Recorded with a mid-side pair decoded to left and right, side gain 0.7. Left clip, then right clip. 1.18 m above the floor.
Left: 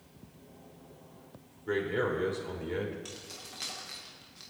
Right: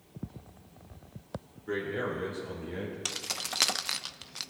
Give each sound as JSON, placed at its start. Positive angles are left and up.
{"t": 1.7, "sound": "a man speaking", "azimuth_deg": 25, "distance_m": 4.0}
{"t": 3.0, "sound": "keys jangling", "azimuth_deg": -55, "distance_m": 0.5}